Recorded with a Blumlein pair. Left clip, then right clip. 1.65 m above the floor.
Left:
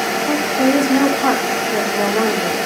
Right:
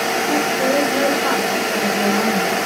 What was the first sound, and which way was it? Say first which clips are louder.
A woman speaking: left 2 dB; 45° left.